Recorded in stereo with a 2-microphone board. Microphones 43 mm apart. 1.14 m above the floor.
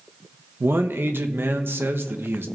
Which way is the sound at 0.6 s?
60° right (ahead or behind).